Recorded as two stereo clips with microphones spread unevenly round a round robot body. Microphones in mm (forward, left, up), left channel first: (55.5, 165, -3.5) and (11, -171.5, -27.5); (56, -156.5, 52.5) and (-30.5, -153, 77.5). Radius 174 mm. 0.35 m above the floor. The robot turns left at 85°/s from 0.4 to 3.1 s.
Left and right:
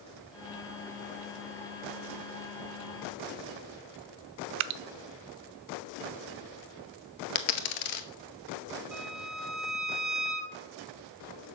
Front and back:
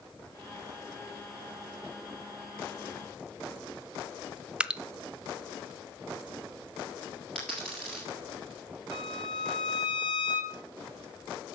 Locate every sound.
4.6 s dripping: 105° right, 0.6 m
7.3 s a dropped coin: 90° left, 1.1 m
8.9 s a violin: 10° right, 1.0 m